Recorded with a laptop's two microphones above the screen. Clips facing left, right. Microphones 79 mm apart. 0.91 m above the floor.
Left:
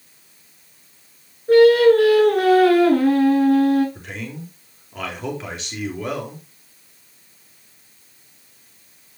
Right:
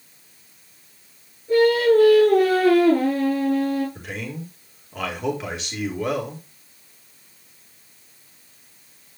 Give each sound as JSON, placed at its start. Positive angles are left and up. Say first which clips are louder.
{"t": 1.5, "sound": "singing", "louder": "left 5 dB", "side_deg": 85, "distance_m": 4.0}
{"t": 4.0, "sound": "a man speaking", "louder": "right 1 dB", "side_deg": 0, "distance_m": 3.5}